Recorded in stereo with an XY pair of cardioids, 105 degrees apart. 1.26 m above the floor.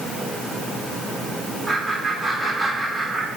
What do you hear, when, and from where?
1.7 s laughter: 35° right, 5 m; by 3.3 s 45° right, 6 m